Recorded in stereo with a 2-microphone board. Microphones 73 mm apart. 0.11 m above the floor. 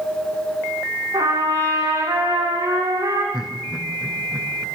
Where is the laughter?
5° right (ahead or behind), 5.5 m.